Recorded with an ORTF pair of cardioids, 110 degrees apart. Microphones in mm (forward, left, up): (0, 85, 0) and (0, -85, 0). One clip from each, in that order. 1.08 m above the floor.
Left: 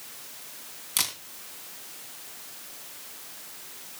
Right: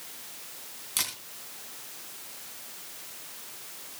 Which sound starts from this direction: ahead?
A camera shutter, at 1.0 s.